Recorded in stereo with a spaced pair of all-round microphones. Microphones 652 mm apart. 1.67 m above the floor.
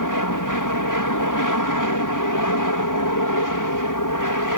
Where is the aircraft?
30° left (ahead or behind).